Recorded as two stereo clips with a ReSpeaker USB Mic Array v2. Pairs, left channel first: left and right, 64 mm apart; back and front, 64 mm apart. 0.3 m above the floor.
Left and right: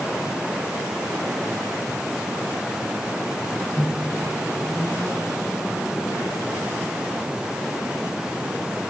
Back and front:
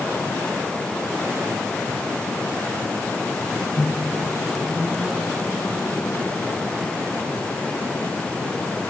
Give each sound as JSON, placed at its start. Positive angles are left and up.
{"t": 3.8, "sound": "a microwave", "azimuth_deg": 105, "distance_m": 1.7}